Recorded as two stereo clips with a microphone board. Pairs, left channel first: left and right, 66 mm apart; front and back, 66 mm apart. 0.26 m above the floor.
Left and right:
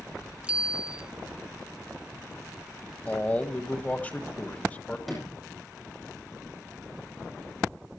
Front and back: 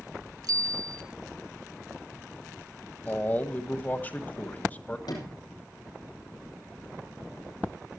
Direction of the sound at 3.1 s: 40° left.